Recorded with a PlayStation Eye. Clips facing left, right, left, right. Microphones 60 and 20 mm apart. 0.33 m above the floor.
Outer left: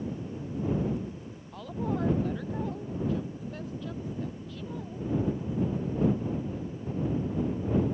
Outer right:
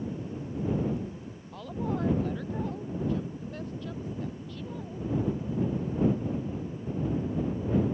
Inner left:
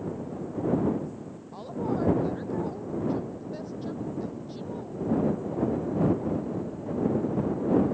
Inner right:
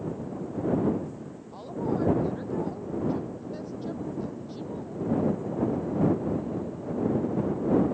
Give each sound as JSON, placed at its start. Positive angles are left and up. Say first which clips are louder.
{"t": 1.5, "sound": "a woman speaking", "louder": "even, even", "side_deg": 0}